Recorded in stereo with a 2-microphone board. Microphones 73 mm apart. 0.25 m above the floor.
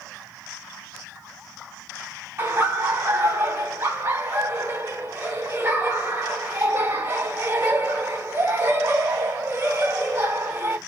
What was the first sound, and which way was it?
Laughter, 35° right (ahead or behind).